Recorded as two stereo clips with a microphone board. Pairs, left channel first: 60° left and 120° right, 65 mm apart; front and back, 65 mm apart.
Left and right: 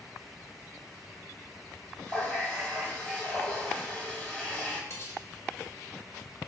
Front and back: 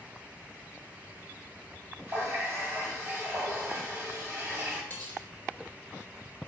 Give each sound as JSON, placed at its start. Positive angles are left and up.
{"t": 2.1, "sound": "a running tap", "azimuth_deg": 135, "distance_m": 1.9}
{"t": 4.9, "sound": "cutlery clinking", "azimuth_deg": 55, "distance_m": 0.8}